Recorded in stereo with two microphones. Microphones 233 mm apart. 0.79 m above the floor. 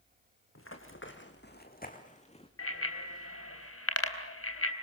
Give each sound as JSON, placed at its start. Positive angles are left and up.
{"t": 0.6, "sound": "running footsteps", "side_deg": 65, "distance_m": 3.5}
{"t": 2.6, "sound": "a bicycle bell", "side_deg": 75, "distance_m": 3.5}